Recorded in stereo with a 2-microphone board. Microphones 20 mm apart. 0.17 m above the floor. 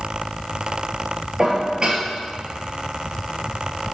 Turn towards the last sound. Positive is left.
turn(degrees=-30)  # may be behind; listen again after turning